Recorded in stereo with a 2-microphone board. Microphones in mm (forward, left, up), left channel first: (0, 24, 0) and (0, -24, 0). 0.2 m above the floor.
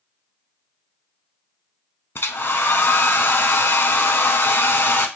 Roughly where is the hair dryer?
Left.